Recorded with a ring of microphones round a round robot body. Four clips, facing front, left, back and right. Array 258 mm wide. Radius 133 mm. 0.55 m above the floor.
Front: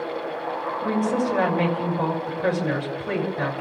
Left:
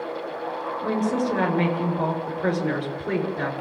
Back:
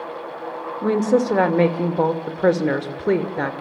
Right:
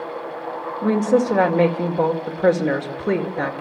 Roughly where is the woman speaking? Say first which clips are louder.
Right 7 dB, back 6 dB; behind right.